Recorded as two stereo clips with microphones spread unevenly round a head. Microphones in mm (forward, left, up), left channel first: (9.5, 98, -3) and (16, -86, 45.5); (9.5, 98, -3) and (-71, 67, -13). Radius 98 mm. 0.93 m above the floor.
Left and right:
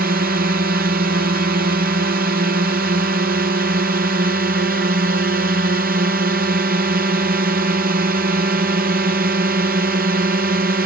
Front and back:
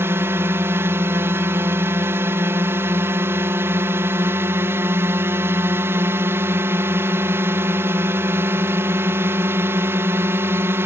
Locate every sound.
0.0 s a drone: 115° right